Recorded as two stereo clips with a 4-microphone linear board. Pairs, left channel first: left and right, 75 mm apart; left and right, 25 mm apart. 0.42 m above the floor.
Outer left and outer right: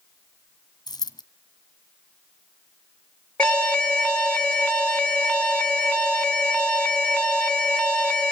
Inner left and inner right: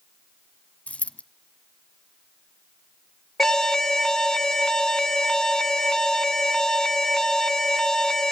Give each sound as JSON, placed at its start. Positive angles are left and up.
{"t": 0.9, "sound": "a dropped coin", "side_deg": 65, "distance_m": 1.1}
{"t": 3.4, "sound": "an alarm", "side_deg": 15, "distance_m": 1.3}